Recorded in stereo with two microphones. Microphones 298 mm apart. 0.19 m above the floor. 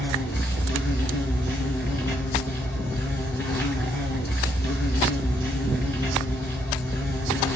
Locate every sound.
0.0 s an insect: 10° left (ahead or behind), 1.2 m